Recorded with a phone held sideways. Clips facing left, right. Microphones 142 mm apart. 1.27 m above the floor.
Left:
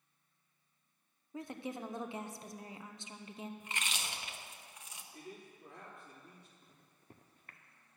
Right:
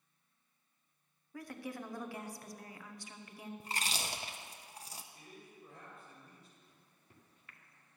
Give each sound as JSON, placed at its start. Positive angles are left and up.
{"t": 1.3, "sound": "a woman speaking", "side_deg": 20, "distance_m": 0.7}
{"t": 3.6, "sound": "chewing", "side_deg": -35, "distance_m": 0.6}
{"t": 5.1, "sound": "a man speaking", "side_deg": 75, "distance_m": 3.0}
{"t": 6.6, "sound": "a microwave", "side_deg": 45, "distance_m": 0.6}